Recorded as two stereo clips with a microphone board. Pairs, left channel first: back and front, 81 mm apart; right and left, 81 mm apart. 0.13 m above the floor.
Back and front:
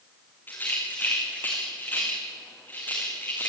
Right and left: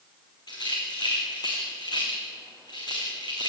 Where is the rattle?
115° right, 5.5 m.